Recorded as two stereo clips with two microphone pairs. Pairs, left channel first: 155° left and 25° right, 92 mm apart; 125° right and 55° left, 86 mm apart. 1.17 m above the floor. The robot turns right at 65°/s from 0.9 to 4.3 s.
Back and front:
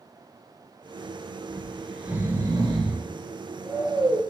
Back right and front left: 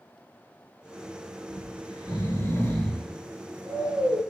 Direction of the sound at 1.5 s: 135° right.